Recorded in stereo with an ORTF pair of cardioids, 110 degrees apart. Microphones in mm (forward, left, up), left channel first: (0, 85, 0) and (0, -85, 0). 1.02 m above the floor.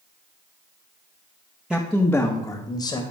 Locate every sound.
1.7 s a man speaking: 5° right, 0.9 m; by 3.0 s 25° left, 1.4 m